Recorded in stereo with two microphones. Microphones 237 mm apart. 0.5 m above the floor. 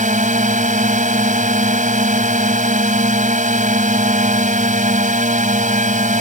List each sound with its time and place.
0.0 s a drone: 35° right (ahead or behind)